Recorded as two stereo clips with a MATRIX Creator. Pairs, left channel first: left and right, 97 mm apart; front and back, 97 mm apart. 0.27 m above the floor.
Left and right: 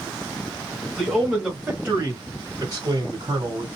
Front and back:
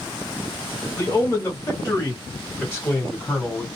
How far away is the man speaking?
About 1.2 m.